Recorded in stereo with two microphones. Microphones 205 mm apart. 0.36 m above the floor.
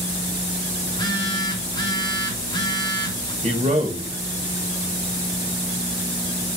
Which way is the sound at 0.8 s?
20° left (ahead or behind).